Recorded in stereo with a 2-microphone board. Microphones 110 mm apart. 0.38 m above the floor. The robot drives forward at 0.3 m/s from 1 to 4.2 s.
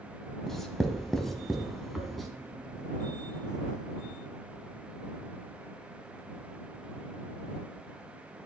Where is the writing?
5° left (ahead or behind), 0.7 m; by 2.3 s centre (ahead or behind), 1.1 m.